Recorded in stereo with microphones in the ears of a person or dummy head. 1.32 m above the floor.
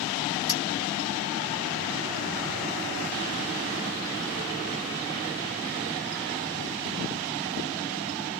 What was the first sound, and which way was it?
A clink, 20° right (ahead or behind).